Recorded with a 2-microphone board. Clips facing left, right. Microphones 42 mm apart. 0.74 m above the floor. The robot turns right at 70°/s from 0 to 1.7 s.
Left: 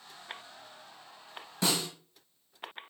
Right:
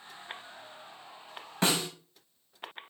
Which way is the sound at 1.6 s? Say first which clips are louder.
Right 2 dB; 45° right (ahead or behind).